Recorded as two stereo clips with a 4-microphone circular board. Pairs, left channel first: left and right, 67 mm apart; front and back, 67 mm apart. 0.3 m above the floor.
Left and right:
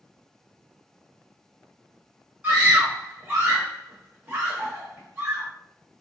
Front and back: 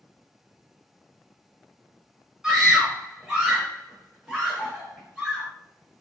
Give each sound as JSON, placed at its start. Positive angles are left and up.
{"t": 2.4, "sound": "a scream", "azimuth_deg": -110, "distance_m": 0.9}